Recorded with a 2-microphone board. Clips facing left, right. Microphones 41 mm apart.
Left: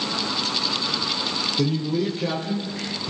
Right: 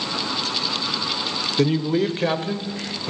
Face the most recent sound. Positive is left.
turn(degrees=-40)  # may be behind; listen again after turning